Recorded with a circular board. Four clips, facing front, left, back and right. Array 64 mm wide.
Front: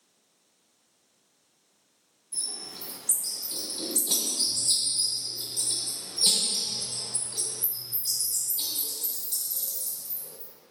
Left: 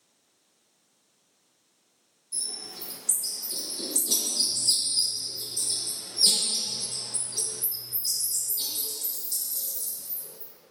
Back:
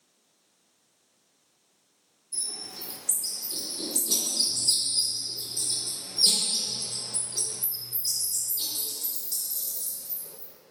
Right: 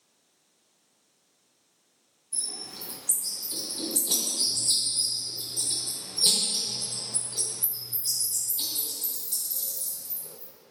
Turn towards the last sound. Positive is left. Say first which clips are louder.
# even, even
turn(degrees=-55)